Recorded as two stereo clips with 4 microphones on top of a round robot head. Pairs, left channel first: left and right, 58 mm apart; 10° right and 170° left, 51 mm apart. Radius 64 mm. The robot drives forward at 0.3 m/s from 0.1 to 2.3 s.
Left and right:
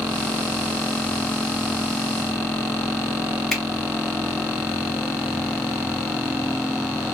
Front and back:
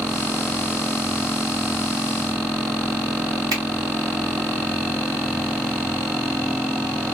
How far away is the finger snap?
About 1.8 m.